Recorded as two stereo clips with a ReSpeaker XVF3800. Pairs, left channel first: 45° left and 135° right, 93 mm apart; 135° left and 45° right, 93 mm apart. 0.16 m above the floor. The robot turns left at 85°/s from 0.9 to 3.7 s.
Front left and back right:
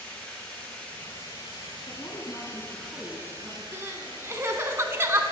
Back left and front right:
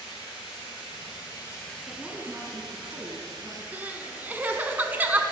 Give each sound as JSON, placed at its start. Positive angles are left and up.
{"t": 0.0, "sound": "running water", "azimuth_deg": 125, "distance_m": 4.5}
{"t": 1.9, "sound": "a woman speaking", "azimuth_deg": 50, "distance_m": 1.2}
{"t": 3.7, "sound": "crying", "azimuth_deg": -100, "distance_m": 0.7}